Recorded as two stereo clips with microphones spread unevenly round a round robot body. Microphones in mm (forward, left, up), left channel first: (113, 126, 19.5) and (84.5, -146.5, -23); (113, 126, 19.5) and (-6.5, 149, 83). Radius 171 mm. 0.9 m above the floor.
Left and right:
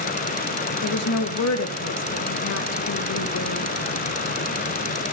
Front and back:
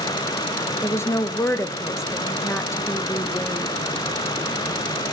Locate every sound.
0.8 s a woman speaking: 50° left, 0.9 m